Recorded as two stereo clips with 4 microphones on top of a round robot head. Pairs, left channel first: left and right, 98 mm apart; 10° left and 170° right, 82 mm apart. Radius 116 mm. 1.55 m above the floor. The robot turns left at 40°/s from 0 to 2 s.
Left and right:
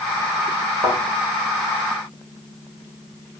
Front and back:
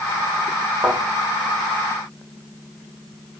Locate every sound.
0.8 s a thud: 105° right, 0.9 m; by 1.0 s 110° right, 0.9 m